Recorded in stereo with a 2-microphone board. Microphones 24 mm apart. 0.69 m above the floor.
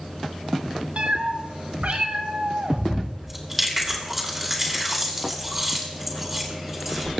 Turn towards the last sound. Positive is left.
turn(degrees=-10)  # may be behind; listen again after turning